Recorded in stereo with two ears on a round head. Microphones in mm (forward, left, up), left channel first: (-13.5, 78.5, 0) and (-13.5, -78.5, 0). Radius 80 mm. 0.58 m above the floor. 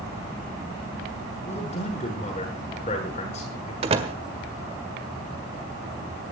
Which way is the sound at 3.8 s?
30° right (ahead or behind).